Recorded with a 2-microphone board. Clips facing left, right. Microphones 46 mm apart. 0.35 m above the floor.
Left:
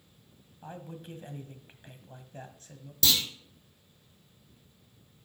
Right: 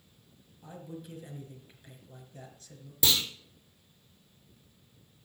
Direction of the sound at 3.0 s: 15° right (ahead or behind).